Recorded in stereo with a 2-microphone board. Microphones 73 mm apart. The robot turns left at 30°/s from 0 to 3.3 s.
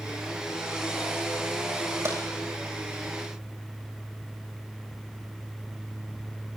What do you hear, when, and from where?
2.0 s tapping: 45° right (ahead or behind), 7.5 m; by 2.2 s 40° right (ahead or behind), 7.5 m